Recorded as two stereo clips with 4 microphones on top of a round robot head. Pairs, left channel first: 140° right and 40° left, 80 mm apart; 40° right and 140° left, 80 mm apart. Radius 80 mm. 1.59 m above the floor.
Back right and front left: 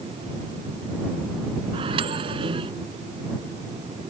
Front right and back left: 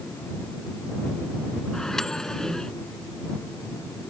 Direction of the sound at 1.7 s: 45° left.